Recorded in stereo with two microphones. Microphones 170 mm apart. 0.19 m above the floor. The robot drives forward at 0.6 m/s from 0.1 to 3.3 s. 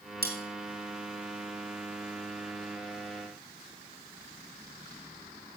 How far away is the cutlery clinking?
About 2.5 m.